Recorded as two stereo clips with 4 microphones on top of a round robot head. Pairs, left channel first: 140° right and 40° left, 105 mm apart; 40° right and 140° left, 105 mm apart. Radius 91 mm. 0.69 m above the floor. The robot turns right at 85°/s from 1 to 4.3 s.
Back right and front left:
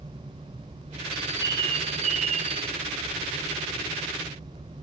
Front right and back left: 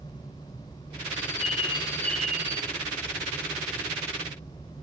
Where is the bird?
45° right, 1.1 m; by 2.7 s 90° left, 1.1 m.